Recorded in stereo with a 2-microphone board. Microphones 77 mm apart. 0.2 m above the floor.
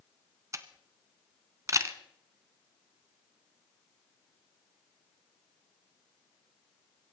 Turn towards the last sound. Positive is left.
turn(degrees=-40)  # may be behind; listen again after turning